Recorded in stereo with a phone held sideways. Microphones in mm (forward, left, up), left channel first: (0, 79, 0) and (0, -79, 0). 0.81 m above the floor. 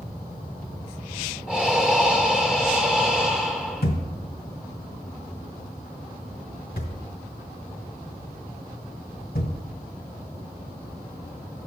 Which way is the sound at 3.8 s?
80° left.